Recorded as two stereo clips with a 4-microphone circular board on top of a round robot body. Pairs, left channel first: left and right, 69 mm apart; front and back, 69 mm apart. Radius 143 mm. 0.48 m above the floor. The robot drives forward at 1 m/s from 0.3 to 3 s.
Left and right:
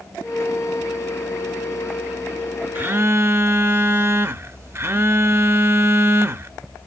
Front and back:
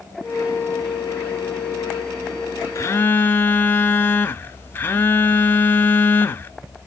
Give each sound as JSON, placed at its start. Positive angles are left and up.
{"t": 2.8, "sound": "a phone buzzing", "azimuth_deg": -30, "distance_m": 0.8}